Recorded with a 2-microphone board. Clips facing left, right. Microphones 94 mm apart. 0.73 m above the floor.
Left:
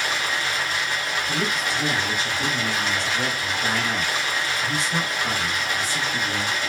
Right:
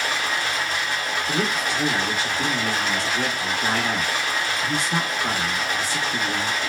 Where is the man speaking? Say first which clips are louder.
Right 2 dB; 55° right (ahead or behind), 0.8 m.